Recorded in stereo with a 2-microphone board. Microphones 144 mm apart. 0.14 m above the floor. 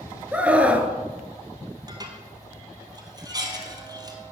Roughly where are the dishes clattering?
Right.